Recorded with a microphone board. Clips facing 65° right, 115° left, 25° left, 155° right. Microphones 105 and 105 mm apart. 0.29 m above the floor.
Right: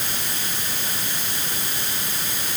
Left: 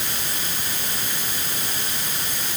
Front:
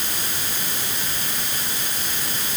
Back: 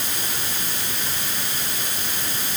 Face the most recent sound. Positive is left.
No sound to turn to.